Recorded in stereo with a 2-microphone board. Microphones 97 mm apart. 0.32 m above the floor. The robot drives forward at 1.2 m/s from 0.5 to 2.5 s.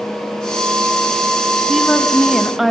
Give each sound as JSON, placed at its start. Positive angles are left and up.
{"t": 1.7, "sound": "a woman speaking", "side_deg": 0, "distance_m": 2.0}